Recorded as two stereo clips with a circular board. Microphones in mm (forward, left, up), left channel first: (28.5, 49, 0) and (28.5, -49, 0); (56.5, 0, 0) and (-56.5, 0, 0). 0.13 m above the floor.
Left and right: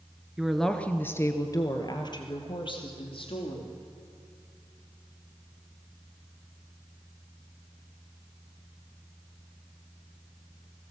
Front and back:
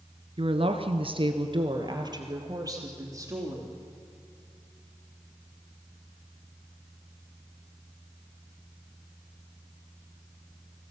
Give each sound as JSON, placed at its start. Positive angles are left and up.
{"t": 0.4, "sound": "a woman speaking", "azimuth_deg": -170, "distance_m": 1.5}